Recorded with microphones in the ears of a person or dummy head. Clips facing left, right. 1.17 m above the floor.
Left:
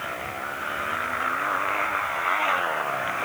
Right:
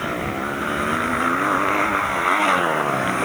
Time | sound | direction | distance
0.0 | a motorcycle | 55° right (ahead or behind) | ?